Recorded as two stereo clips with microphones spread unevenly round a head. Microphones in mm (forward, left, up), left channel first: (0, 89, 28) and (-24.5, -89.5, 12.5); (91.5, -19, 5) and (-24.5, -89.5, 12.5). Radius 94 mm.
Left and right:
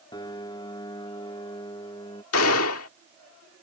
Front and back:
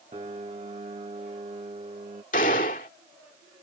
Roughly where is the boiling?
No boiling in this recording.